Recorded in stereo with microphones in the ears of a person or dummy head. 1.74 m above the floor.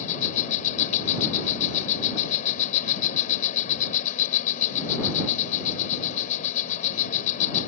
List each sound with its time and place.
0.0 s an insect: 45° left (ahead or behind)